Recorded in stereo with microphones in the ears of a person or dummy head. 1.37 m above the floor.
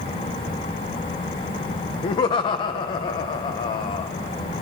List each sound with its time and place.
2.0 s laughter: 35° left (ahead or behind), 0.6 m